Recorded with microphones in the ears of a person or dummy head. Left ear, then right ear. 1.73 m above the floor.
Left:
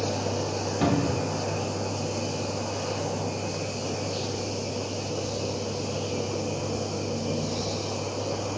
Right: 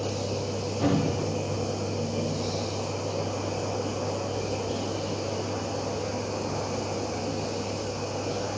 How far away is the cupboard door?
About 1.0 m.